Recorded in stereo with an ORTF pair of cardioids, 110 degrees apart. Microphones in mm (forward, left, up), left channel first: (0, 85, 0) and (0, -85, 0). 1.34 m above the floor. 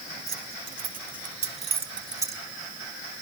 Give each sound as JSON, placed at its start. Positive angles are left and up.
{"t": 0.3, "sound": "keys jangling", "azimuth_deg": -65, "distance_m": 2.5}